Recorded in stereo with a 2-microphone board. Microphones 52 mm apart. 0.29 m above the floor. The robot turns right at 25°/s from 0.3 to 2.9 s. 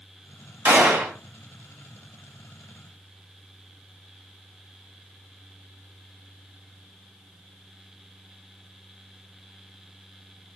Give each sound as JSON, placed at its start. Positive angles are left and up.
{"t": 0.7, "sound": "a gunshot", "side_deg": -40, "distance_m": 1.6}